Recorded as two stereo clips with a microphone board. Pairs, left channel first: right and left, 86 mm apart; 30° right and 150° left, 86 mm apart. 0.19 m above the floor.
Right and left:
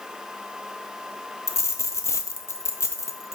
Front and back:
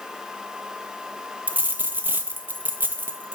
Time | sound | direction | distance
1.5 | a dropped coin | 145° right | 0.6 m